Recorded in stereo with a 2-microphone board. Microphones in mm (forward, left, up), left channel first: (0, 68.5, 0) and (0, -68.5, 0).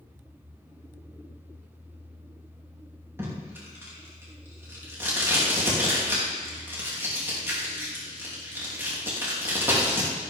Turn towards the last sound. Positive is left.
turn(degrees=-15)  # may be behind; listen again after turning